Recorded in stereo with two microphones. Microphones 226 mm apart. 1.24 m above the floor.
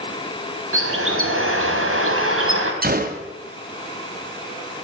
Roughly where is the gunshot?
Right.